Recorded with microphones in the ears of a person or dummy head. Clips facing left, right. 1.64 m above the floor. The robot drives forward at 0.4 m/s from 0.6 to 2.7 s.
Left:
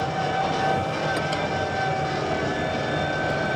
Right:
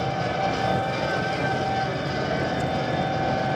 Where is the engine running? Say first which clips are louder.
Even; 10° right (ahead or behind), 2 m.